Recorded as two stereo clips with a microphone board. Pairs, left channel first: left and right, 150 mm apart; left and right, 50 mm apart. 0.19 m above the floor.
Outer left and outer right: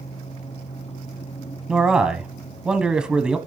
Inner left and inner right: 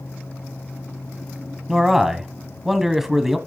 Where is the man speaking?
5° right (ahead or behind), 1.0 m.